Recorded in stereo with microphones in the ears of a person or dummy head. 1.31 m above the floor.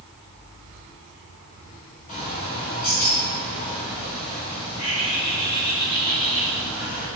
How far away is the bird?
About 2.5 m.